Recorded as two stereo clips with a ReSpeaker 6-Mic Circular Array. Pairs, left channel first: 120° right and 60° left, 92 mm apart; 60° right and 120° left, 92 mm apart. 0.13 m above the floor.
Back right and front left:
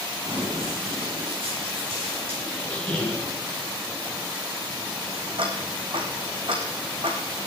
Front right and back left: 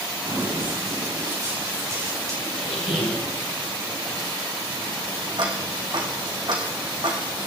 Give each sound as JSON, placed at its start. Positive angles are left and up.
{"t": 0.2, "sound": "running footsteps", "azimuth_deg": 75, "distance_m": 7.5}
{"t": 2.5, "sound": "a squeak", "azimuth_deg": -40, "distance_m": 3.0}
{"t": 5.4, "sound": "ticking", "azimuth_deg": 85, "distance_m": 2.5}